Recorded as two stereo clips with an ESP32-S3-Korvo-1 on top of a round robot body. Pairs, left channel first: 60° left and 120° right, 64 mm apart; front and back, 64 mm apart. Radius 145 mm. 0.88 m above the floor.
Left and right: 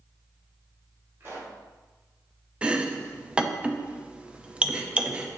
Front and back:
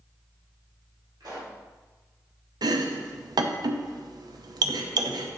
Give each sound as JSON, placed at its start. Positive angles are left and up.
{"t": 1.2, "sound": "a pop", "azimuth_deg": -170, "distance_m": 3.0}
{"t": 2.6, "sound": "chopping", "azimuth_deg": 165, "distance_m": 0.6}